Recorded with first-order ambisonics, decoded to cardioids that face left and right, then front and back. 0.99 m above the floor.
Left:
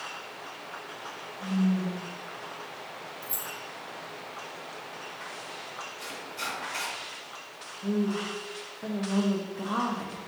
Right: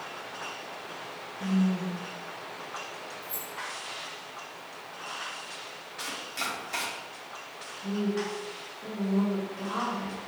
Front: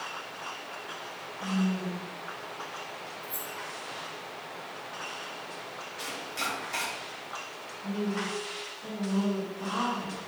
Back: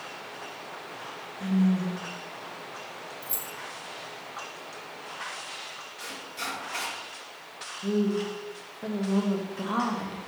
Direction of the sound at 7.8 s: 145° left.